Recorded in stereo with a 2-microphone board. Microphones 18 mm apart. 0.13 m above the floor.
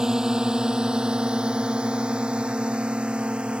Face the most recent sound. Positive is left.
turn(degrees=-80)